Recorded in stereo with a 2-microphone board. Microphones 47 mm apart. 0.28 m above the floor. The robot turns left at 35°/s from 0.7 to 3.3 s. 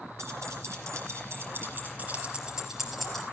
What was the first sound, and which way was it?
Keys jangling, 75° right (ahead or behind).